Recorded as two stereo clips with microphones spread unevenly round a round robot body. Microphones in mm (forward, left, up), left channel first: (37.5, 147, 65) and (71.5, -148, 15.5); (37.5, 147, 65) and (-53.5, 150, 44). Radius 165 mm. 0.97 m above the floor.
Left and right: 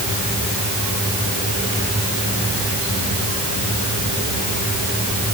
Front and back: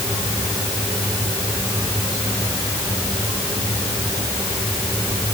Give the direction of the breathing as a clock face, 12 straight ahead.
I don't hear breathing.